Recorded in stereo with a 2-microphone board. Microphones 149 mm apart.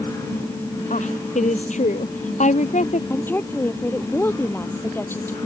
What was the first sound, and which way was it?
A woman speaking, 55° left (ahead or behind).